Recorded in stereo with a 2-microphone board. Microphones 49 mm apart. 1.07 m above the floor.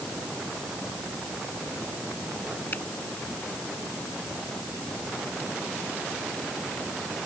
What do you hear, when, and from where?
2.7 s a finger snap: 35° left (ahead or behind)